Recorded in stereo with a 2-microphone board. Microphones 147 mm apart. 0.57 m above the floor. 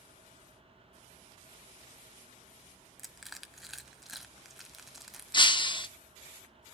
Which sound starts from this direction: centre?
Crushing, at 3.0 s.